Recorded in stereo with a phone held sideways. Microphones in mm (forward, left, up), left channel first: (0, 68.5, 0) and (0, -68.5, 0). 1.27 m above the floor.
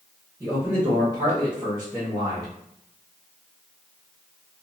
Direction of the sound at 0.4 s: 25° right (ahead or behind).